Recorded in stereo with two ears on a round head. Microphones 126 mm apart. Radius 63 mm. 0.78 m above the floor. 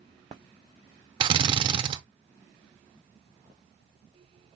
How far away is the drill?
About 0.5 m.